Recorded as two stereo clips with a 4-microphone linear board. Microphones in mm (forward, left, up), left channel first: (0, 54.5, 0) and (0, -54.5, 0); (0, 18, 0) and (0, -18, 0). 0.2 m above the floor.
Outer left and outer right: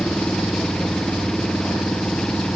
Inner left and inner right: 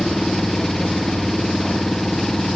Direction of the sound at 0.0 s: 5° left (ahead or behind).